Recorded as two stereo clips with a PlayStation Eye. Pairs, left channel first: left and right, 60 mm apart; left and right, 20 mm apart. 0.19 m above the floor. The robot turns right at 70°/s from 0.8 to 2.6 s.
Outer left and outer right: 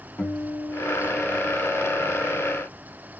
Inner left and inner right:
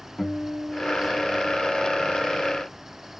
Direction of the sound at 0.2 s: 95° left.